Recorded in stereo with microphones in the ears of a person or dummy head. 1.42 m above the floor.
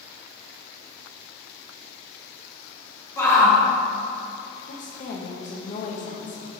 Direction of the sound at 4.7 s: 40° left (ahead or behind).